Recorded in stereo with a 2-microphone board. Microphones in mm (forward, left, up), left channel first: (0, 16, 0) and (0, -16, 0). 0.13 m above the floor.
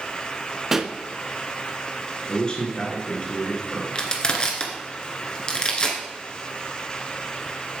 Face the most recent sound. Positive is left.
turn(degrees=30)  # may be behind; listen again after turning